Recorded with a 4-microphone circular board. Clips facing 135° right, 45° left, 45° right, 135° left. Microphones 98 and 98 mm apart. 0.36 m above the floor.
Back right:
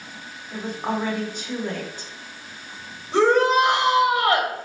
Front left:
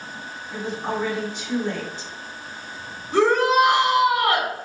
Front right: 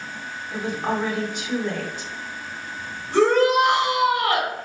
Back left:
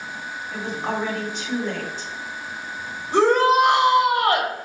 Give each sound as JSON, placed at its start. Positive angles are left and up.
{"t": 0.5, "sound": "a woman speaking", "azimuth_deg": -125, "distance_m": 1.8}
{"t": 3.1, "sound": "a shout", "azimuth_deg": -175, "distance_m": 1.3}